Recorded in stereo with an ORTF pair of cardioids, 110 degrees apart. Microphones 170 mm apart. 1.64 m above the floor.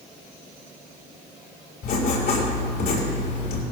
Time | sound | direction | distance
1.8 | writing | 65° left | 5.5 m